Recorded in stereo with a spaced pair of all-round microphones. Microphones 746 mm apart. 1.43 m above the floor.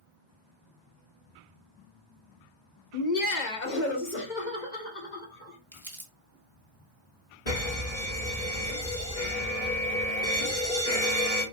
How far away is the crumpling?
About 1.3 m.